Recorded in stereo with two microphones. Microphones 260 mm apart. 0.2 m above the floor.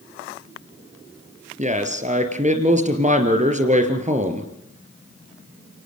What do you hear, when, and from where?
1.6 s a man speaking: 30° right (ahead or behind), 3.5 m